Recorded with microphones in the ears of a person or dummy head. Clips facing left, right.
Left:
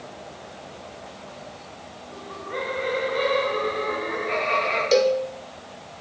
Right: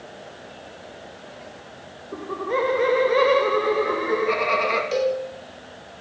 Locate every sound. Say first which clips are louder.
2.1 s laughter: right 8 dB; 60° right (ahead or behind), 1.3 m
4.9 s a cowbell: left 5 dB; 65° left (ahead or behind), 1.9 m